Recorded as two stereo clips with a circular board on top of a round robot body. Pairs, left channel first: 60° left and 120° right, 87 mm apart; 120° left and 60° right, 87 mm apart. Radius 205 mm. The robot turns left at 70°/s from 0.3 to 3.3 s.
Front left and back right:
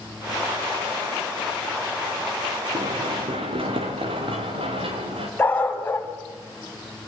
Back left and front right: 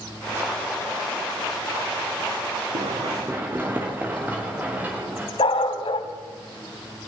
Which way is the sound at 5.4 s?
130° left.